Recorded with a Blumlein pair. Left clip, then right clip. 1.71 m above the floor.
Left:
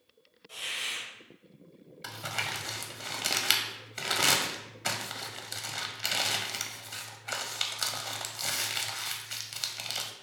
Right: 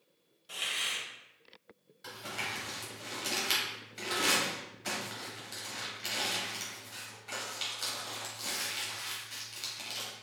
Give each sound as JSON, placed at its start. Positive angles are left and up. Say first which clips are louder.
{"t": 0.5, "sound": "a hiss", "louder": "right 1 dB", "azimuth_deg": -30, "distance_m": 1.3}
{"t": 2.0, "sound": "crumpling", "louder": "left 4 dB", "azimuth_deg": 25, "distance_m": 0.8}